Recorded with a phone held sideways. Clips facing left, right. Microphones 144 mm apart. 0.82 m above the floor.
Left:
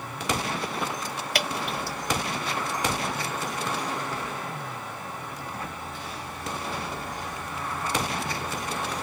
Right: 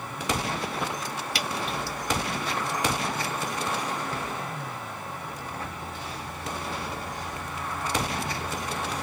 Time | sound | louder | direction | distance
1.4 | dripping | left 2 dB | 55° left (ahead or behind) | 1.4 m